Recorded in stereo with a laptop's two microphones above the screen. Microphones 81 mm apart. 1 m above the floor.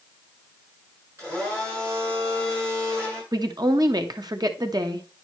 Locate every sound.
1.2 s a blender: 30° right (ahead or behind), 6.5 m
3.3 s a woman speaking: 55° right (ahead or behind), 1.0 m